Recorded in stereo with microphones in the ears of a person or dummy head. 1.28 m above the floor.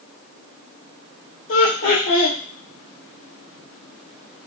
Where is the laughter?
55° left (ahead or behind), 0.8 m.